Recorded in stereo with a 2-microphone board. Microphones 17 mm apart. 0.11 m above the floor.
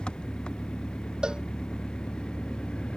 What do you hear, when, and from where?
0.0 s an engine running: 85° left
1.2 s a cowbell: 65° right (ahead or behind)